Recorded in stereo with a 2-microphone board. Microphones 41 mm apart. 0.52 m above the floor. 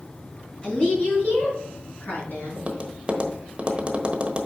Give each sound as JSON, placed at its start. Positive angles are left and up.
{"t": 0.6, "sound": "a woman speaking", "side_deg": 30, "distance_m": 5.0}
{"t": 2.6, "sound": "tapping", "side_deg": -30, "distance_m": 1.1}